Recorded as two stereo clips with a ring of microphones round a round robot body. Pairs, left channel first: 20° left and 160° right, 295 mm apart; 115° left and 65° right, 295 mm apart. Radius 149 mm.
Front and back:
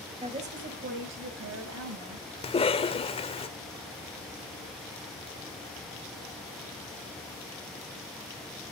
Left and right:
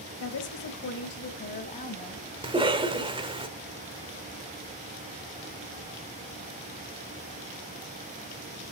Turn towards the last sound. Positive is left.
turn(degrees=-20)